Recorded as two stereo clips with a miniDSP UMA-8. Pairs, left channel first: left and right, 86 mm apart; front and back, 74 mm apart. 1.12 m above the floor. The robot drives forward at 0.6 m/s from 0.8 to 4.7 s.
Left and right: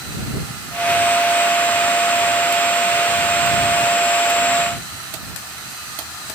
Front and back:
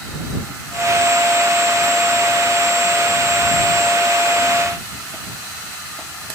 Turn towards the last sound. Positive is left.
No sound to turn to.